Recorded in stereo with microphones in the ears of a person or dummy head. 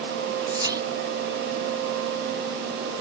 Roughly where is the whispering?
Right.